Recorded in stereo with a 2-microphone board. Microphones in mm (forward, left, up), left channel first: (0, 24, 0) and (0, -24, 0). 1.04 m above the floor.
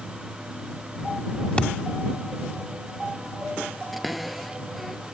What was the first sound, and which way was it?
A thud, 20° left (ahead or behind).